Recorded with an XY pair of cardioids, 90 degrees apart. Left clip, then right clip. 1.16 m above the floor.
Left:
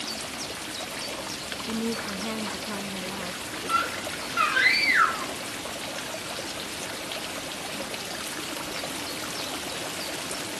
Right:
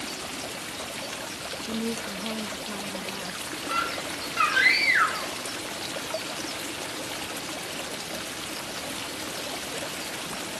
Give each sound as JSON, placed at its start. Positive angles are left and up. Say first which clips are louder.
{"t": 1.6, "sound": "a woman speaking", "louder": "left 1 dB", "azimuth_deg": 25, "distance_m": 1.3}
{"t": 3.7, "sound": "a scream", "louder": "left 2 dB", "azimuth_deg": 10, "distance_m": 3.0}